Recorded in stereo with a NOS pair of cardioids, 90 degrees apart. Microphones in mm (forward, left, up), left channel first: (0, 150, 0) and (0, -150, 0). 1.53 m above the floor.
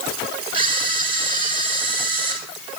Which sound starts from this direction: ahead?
A camera shutter, at 0.5 s.